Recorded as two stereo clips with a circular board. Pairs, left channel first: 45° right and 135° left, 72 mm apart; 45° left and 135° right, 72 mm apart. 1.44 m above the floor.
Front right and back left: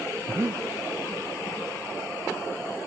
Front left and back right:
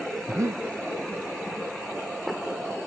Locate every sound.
0.3 s breathing: 175° right, 0.7 m